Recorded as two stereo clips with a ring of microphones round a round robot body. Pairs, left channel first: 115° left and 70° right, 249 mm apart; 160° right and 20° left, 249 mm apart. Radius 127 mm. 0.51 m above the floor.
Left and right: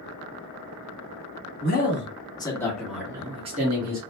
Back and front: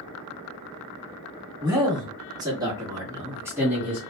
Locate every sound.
1.6 s a man speaking: 90° left, 1.4 m; by 4.0 s 60° right, 1.3 m